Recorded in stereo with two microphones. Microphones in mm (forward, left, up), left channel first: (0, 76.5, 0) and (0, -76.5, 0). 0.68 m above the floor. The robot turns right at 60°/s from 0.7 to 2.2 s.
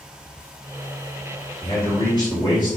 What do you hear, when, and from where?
1.6 s a man speaking: 105° left, 1.5 m; by 2.8 s 140° left, 1.5 m